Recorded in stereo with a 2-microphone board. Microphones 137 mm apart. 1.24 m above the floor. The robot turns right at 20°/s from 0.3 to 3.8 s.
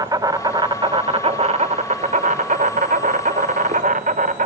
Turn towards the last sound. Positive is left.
turn(degrees=-80)